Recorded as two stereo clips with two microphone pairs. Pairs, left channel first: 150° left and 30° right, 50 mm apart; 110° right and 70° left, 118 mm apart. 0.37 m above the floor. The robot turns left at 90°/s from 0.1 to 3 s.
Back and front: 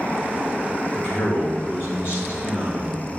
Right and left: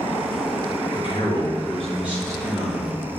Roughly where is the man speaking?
Right.